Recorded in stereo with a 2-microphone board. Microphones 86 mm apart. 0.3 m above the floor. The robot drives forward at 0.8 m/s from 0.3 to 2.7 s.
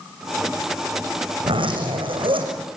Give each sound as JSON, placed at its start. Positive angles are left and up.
{"t": 1.4, "sound": "a zipper", "side_deg": -75, "distance_m": 6.5}